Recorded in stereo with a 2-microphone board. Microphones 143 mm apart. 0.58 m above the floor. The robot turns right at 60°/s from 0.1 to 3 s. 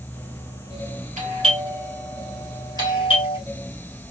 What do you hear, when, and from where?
1.2 s a doorbell: 55° right (ahead or behind), 2.5 m; by 3.4 s 40° left (ahead or behind), 2.5 m